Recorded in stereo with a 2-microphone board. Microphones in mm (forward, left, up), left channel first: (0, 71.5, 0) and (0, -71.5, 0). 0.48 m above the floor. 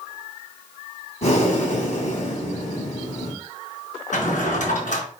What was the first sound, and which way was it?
Breathing, 50° left (ahead or behind).